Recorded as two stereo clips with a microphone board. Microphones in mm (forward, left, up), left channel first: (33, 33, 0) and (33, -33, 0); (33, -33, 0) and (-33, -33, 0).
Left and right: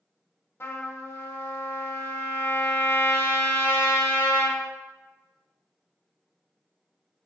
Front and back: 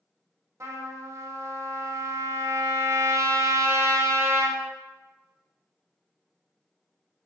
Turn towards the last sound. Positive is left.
turn(degrees=140)